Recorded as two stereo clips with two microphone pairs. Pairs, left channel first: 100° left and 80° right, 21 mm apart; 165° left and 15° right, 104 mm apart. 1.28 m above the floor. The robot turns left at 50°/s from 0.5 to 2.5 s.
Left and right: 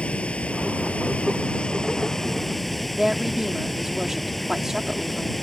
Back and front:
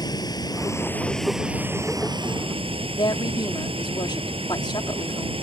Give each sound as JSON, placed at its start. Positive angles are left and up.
{"t": 0.0, "sound": "running water", "azimuth_deg": 110}
{"t": 3.0, "sound": "a woman speaking", "azimuth_deg": -155}